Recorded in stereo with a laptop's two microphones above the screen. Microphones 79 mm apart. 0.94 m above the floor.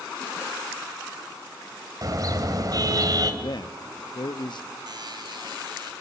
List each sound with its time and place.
2.0 s a car horn: 45° right (ahead or behind), 3 m
3.4 s a man speaking: 60° left (ahead or behind), 0.8 m
4.9 s a buzzer: 60° right (ahead or behind), 2.5 m